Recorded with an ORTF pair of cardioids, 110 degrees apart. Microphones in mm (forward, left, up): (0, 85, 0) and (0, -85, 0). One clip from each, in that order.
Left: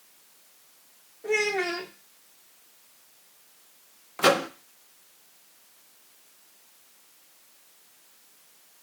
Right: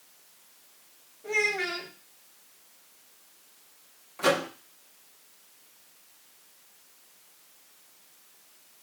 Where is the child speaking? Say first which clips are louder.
Left 1 dB; 40° left, 0.7 m.